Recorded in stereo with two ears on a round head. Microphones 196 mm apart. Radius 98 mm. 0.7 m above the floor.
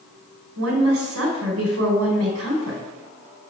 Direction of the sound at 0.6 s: 70° right (ahead or behind).